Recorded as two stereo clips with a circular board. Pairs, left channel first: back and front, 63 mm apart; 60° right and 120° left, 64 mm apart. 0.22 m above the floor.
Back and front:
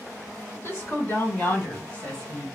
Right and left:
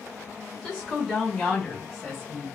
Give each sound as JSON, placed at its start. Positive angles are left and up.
{"t": 0.5, "sound": "a woman speaking", "azimuth_deg": -160, "distance_m": 1.9}